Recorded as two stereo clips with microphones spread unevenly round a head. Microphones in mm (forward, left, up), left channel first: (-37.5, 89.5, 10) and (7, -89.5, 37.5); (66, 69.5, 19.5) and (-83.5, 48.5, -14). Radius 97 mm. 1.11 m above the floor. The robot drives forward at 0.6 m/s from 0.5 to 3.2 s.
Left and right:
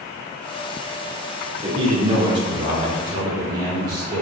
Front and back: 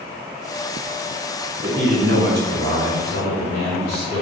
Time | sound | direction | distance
1.6 | a man speaking | 140° right | 4 m